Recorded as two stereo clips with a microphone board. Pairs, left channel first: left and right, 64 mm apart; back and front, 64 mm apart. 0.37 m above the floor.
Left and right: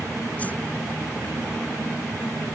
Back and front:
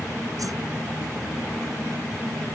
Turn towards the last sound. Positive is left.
turn(degrees=25)